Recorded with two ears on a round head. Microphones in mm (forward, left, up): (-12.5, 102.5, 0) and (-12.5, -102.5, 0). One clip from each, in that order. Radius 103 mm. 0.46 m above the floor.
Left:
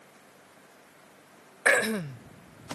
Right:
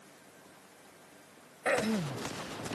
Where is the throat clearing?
45° left (ahead or behind).